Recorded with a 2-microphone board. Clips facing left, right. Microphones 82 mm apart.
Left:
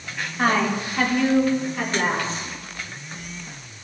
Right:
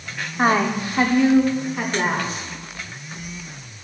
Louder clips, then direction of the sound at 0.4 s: Right 2 dB; 20° right (ahead or behind).